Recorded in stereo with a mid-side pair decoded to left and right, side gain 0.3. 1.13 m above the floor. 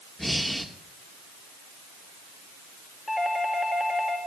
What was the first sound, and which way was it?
Breathing, 10° left.